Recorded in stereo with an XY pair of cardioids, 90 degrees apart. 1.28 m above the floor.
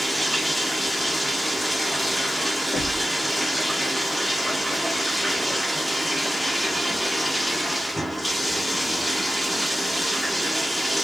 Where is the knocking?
15° left, 2 m.